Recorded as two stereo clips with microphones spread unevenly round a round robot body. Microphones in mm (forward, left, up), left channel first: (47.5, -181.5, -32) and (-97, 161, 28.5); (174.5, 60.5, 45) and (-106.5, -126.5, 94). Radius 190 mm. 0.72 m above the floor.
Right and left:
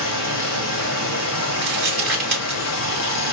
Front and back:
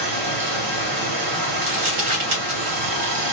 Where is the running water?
120° right, 1.1 m.